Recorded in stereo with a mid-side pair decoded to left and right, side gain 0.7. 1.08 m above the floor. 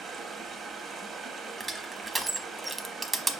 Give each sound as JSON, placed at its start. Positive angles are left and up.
{"t": 0.0, "sound": "running water", "azimuth_deg": -35, "distance_m": 1.0}
{"t": 1.6, "sound": "crushing", "azimuth_deg": -20, "distance_m": 0.8}